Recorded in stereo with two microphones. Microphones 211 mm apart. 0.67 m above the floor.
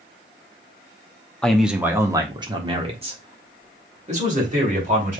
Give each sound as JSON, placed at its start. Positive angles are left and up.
{"t": 1.4, "sound": "a man speaking", "side_deg": 5, "distance_m": 0.7}